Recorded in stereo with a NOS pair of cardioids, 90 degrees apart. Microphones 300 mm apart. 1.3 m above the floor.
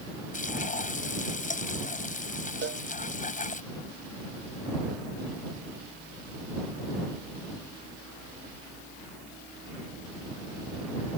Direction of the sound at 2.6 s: 35° right.